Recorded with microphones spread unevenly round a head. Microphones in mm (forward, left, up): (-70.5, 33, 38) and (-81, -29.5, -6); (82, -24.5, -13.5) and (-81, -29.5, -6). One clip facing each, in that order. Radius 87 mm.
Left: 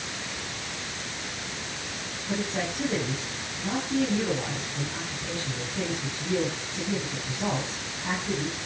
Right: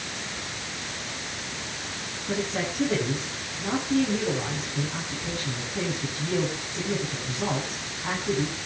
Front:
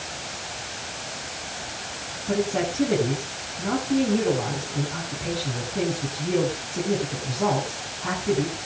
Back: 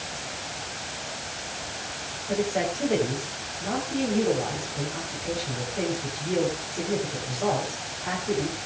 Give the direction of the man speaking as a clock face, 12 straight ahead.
1 o'clock.